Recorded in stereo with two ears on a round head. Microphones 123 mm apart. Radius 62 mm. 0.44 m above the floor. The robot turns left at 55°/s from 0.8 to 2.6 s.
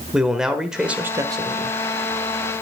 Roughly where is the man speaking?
Ahead.